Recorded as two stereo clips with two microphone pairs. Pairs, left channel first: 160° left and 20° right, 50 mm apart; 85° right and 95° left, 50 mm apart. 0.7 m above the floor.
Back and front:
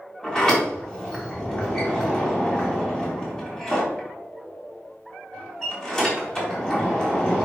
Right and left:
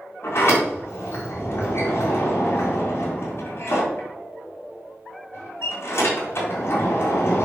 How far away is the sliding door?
About 4 m.